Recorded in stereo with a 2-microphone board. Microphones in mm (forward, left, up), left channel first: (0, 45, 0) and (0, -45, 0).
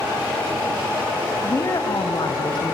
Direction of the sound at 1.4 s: 30° left (ahead or behind).